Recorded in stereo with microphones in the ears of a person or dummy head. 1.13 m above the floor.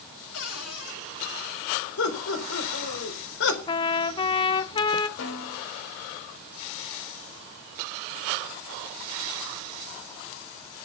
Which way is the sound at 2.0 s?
75° left (ahead or behind).